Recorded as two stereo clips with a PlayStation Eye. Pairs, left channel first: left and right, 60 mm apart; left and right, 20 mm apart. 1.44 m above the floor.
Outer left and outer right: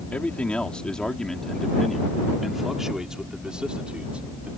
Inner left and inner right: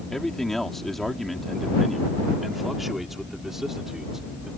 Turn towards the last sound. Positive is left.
turn(degrees=-20)  # may be behind; listen again after turning